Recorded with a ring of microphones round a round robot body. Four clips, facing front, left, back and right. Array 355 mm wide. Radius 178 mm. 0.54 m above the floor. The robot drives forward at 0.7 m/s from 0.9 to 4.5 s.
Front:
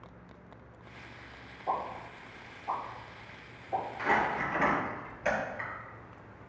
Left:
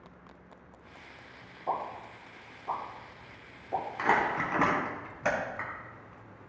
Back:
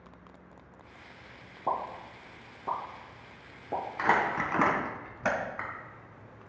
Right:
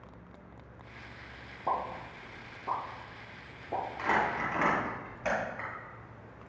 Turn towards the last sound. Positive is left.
turn(degrees=155)